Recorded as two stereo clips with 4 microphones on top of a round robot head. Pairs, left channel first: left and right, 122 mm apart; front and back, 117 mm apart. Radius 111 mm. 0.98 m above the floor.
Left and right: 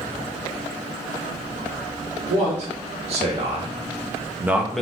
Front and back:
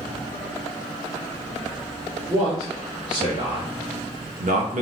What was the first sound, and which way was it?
A man speaking, 115° right.